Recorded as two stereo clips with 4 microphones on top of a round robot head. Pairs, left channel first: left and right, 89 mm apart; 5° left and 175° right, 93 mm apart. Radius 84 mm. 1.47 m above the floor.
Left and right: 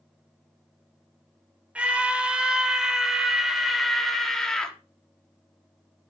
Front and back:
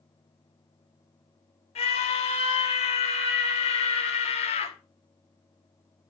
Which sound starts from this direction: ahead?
A scream, at 1.8 s.